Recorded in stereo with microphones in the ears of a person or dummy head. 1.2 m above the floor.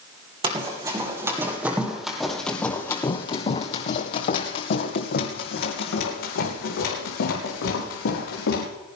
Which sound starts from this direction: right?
Running footsteps, at 0.4 s.